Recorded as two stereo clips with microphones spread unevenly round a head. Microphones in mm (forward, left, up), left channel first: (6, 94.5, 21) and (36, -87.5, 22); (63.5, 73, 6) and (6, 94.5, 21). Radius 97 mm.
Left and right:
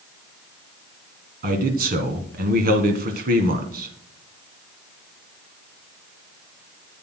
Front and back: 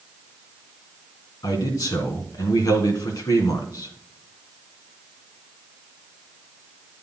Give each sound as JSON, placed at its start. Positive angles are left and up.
{"t": 1.4, "sound": "a man speaking", "azimuth_deg": -40, "distance_m": 1.6}